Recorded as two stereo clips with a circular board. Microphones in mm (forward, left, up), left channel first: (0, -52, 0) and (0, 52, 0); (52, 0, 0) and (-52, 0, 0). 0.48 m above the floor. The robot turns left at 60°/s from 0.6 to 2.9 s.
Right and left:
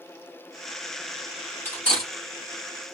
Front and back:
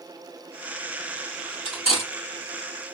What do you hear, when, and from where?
1.6 s cutlery clinking: 160° right, 1.9 m; by 2.1 s 175° left, 1.9 m